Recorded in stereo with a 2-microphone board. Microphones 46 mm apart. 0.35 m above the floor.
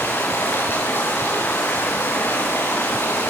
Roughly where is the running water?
Left.